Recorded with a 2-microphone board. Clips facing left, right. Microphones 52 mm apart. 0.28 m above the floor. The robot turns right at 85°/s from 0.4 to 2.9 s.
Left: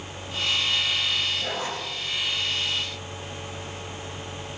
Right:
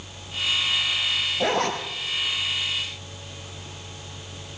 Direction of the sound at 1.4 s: 85° right.